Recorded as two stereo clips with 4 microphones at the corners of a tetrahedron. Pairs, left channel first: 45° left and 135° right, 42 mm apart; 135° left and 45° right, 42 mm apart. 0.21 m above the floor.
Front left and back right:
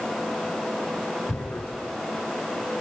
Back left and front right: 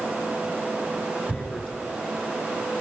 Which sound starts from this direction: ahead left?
Tearing paper, at 1.3 s.